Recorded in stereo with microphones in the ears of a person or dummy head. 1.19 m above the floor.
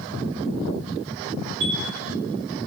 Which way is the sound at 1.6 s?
80° right.